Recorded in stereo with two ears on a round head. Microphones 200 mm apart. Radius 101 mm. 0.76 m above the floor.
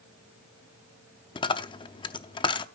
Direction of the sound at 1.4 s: 20° left (ahead or behind).